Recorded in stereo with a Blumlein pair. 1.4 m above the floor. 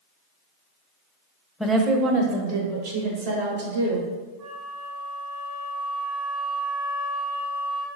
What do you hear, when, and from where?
1.6 s a woman speaking: 5° right, 0.6 m; by 4.1 s 60° right, 3 m
4.4 s a flute: 35° right, 1.5 m